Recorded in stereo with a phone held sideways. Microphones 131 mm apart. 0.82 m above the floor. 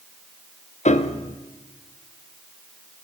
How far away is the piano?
About 0.7 m.